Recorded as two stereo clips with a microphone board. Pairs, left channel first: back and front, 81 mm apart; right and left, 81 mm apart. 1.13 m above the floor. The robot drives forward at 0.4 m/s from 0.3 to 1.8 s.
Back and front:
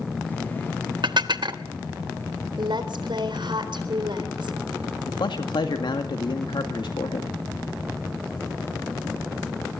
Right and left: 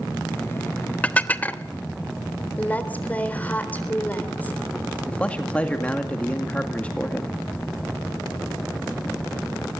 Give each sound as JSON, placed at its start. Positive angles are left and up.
{"t": 1.0, "sound": "dishes clattering", "azimuth_deg": -20, "distance_m": 1.1}
{"t": 2.6, "sound": "a woman speaking", "azimuth_deg": -20, "distance_m": 4.0}
{"t": 5.1, "sound": "a man speaking", "azimuth_deg": -165, "distance_m": 2.0}